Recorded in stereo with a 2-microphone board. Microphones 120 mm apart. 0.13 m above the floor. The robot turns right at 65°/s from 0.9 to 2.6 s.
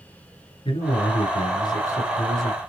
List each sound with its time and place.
0.7 s a man speaking: 80° left, 1.7 m; by 2.6 s 170° right, 1.7 m